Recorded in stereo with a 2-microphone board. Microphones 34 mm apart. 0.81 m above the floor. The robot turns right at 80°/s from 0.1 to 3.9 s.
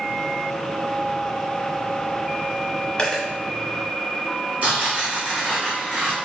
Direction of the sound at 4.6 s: 45° right (ahead or behind).